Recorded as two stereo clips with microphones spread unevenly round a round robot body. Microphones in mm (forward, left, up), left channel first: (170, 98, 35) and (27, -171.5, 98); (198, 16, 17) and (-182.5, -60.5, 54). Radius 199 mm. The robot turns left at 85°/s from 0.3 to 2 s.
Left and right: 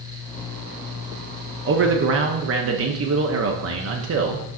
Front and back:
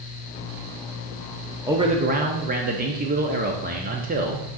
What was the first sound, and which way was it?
A man speaking, 80° right.